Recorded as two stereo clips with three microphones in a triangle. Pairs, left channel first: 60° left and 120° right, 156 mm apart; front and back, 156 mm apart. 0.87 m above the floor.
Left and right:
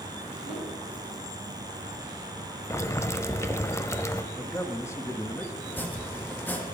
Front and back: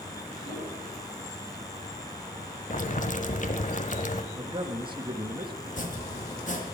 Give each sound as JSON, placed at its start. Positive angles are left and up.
{"t": 0.4, "sound": "a whoosh", "azimuth_deg": -25, "distance_m": 8.5}
{"t": 2.7, "sound": "boiling", "azimuth_deg": -10, "distance_m": 0.9}
{"t": 4.3, "sound": "a man speaking", "azimuth_deg": 130, "distance_m": 1.3}
{"t": 5.7, "sound": "chopping", "azimuth_deg": -15, "distance_m": 1.7}